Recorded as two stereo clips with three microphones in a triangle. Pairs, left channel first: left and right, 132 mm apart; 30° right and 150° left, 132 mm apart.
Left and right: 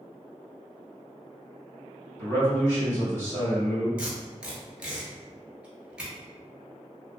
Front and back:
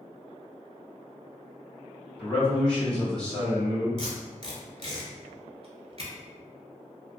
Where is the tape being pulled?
170° right, 0.8 m.